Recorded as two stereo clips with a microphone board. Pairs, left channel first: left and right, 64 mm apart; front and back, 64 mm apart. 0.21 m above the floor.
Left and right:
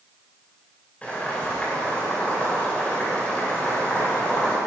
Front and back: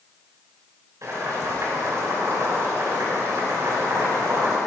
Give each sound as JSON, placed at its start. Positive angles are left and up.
{"t": 1.0, "sound": "boiling", "azimuth_deg": 155, "distance_m": 3.0}